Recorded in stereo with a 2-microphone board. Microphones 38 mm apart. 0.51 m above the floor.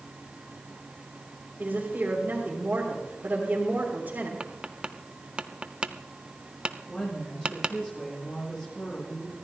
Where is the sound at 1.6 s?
50° right (ahead or behind), 2.5 m.